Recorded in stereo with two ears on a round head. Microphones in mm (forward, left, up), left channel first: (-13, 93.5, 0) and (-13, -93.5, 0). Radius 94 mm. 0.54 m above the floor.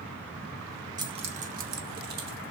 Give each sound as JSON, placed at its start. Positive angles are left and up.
{"t": 1.0, "sound": "keys jangling", "side_deg": -20, "distance_m": 0.7}